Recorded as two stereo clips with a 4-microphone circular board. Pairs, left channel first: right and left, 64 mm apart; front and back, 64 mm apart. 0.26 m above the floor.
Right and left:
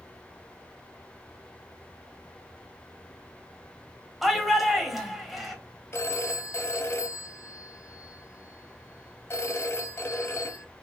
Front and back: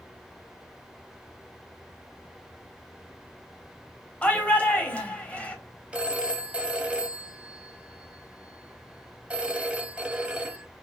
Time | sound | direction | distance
4.2 | a shout | 5° left | 0.9 m
5.9 | a phone ringing | 115° right | 0.7 m